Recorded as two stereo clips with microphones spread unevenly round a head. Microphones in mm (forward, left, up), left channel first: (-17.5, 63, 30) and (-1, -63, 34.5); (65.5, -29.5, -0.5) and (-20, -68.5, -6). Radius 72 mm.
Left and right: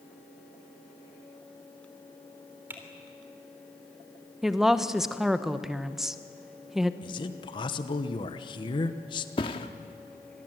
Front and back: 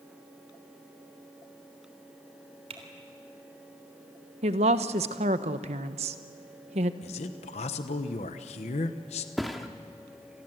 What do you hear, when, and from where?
2.7 s typing on a keyboard: 155° right, 3.5 m
4.4 s a woman speaking: 170° right, 1.0 m
7.0 s a man speaking: 40° left, 1.0 m
9.4 s a thud: 110° left, 1.0 m